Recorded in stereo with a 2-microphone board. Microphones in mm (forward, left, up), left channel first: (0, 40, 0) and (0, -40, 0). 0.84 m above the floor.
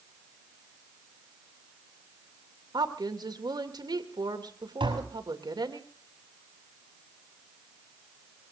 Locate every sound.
2.7 s a woman speaking: 60° right (ahead or behind), 2.5 m
4.8 s tapping: 80° right, 6.5 m